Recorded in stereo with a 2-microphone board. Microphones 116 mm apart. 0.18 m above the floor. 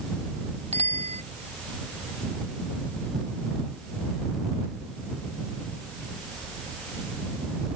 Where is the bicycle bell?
75° right (ahead or behind).